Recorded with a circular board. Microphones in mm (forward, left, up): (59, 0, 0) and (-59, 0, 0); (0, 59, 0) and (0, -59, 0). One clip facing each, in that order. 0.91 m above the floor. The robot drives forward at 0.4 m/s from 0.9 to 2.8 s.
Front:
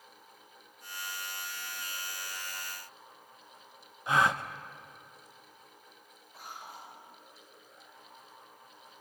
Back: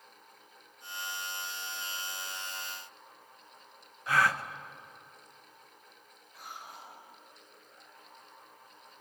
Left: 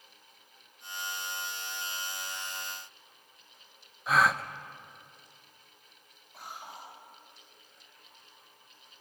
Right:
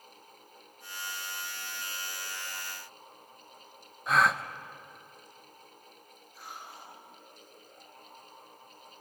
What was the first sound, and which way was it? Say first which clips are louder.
A gasp: front 1 dB, even; 5° left.